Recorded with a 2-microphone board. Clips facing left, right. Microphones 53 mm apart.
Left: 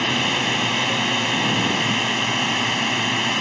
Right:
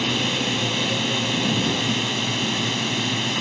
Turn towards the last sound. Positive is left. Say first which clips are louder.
# left 2 dB
turn(degrees=40)  # may be behind; listen again after turning